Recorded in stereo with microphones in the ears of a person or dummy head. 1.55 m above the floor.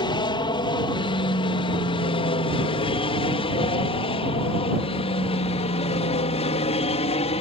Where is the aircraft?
20° left (ahead or behind); by 7.4 s 30° left (ahead or behind).